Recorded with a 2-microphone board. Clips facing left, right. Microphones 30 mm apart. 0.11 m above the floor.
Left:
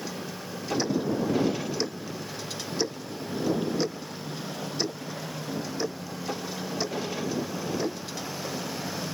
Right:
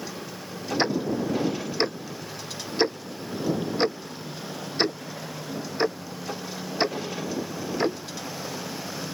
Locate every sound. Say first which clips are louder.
0.8 s ticking: right 2 dB; 45° right (ahead or behind)